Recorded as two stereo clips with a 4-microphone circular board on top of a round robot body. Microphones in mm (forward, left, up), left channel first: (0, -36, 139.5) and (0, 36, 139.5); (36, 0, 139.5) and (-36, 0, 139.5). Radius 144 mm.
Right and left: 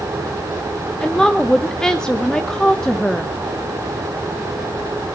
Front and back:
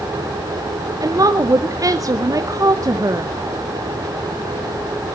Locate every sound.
1.0 s a woman speaking: 170° right, 1.0 m